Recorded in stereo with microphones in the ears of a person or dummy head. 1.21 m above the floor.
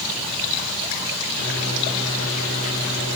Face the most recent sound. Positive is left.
turn(degrees=65)  # may be behind; listen again after turning